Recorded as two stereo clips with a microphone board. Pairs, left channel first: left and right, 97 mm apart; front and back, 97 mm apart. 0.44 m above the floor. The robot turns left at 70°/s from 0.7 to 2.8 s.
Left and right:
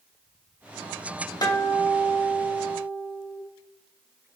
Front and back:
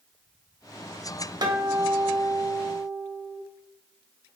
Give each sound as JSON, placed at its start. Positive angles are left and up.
{"t": 1.4, "sound": "a guitar", "azimuth_deg": 135, "distance_m": 0.6}